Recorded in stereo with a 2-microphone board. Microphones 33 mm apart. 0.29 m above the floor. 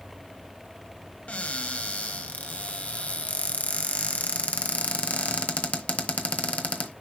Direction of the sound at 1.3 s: 45° left (ahead or behind).